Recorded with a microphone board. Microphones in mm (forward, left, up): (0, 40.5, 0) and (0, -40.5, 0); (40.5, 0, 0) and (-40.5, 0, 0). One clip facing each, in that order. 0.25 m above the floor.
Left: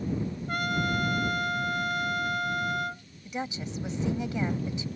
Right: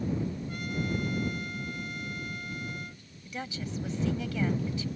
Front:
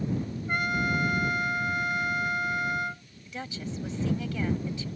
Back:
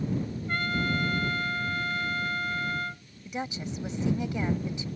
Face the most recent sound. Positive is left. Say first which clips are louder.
# left 3 dB, back 3 dB
turn(degrees=135)